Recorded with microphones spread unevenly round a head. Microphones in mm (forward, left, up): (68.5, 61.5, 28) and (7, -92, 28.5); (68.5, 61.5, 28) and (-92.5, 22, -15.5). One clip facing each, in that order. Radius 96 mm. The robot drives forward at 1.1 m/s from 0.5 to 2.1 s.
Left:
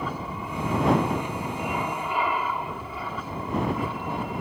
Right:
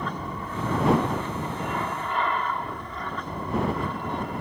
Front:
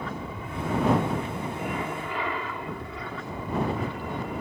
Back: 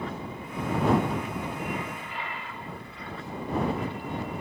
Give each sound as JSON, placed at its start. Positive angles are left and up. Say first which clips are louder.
{"t": 0.0, "sound": "an aircraft", "louder": "even, even", "azimuth_deg": -10}